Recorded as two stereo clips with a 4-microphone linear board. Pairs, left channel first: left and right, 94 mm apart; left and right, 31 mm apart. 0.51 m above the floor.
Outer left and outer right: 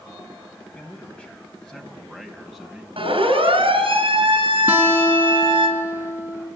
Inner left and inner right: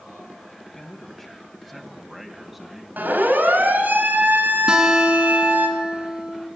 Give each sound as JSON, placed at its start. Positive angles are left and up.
{"t": 0.8, "sound": "a man speaking", "side_deg": 20, "distance_m": 4.0}
{"t": 3.0, "sound": "a siren", "side_deg": -70, "distance_m": 8.0}
{"t": 4.7, "sound": "a guitar", "side_deg": -20, "distance_m": 3.5}